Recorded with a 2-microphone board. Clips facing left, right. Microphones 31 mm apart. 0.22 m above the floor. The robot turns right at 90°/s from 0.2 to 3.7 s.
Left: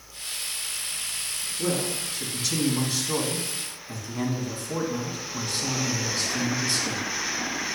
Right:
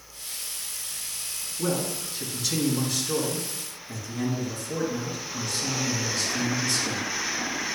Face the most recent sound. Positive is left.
turn(degrees=115)